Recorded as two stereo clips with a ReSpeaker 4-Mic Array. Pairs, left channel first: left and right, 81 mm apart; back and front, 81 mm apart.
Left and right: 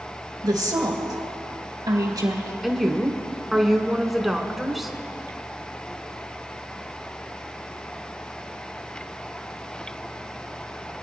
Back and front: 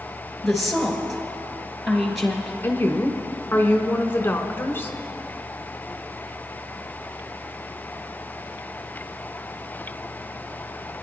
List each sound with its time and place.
0.4 s a woman speaking: 90° right, 3 m
2.6 s a woman speaking: 175° right, 1.1 m